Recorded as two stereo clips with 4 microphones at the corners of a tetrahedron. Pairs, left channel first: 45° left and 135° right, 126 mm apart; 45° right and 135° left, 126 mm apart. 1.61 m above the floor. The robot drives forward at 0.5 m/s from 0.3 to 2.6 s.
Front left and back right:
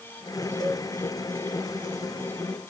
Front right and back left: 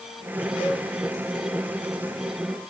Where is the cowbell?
5° right, 1.2 m.